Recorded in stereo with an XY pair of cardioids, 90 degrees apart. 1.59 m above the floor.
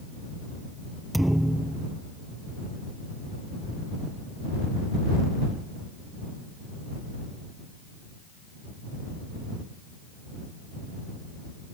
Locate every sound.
1.1 s a thud: 10° right